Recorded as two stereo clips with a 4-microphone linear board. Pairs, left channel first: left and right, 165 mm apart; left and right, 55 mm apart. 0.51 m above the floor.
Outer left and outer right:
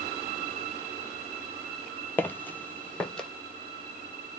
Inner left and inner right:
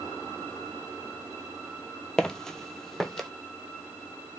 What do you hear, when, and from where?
2.2 s footsteps: 10° left (ahead or behind), 0.5 m; by 3.3 s 5° left (ahead or behind), 0.7 m